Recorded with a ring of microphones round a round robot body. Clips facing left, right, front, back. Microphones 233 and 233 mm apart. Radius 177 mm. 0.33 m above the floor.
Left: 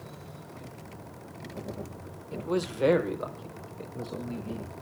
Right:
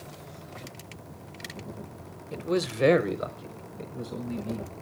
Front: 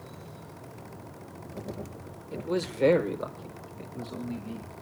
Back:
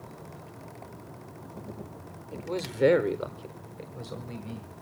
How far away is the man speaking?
About 0.9 m.